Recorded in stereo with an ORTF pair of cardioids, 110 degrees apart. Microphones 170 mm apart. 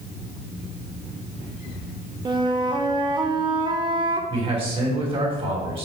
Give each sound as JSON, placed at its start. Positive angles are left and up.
{"t": 2.2, "sound": "a flute", "azimuth_deg": -25, "distance_m": 0.9}
{"t": 4.3, "sound": "a man speaking", "azimuth_deg": -30, "distance_m": 3.0}